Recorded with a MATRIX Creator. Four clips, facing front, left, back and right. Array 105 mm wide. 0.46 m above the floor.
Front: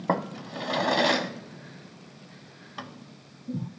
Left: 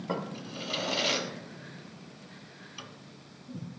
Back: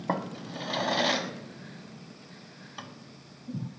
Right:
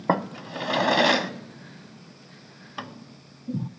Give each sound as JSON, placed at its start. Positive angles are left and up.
{"t": 0.1, "sound": "a drawer", "azimuth_deg": -75, "distance_m": 0.7}